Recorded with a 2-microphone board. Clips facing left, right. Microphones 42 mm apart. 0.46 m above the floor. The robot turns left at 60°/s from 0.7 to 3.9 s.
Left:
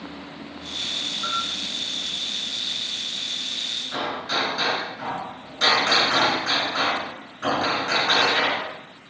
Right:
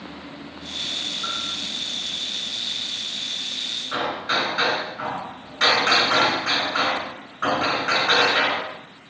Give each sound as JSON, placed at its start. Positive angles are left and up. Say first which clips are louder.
{"t": 1.2, "sound": "a bell", "louder": "left 5 dB", "side_deg": 35, "distance_m": 1.8}
{"t": 3.9, "sound": "hammering", "louder": "right 3 dB", "side_deg": -50, "distance_m": 3.0}